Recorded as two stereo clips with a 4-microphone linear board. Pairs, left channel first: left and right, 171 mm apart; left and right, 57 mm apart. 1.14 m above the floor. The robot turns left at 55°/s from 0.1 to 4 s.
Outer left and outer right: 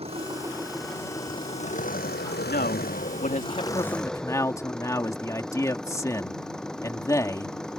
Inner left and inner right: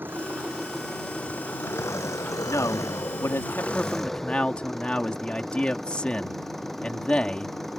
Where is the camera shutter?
I don't hear a camera shutter.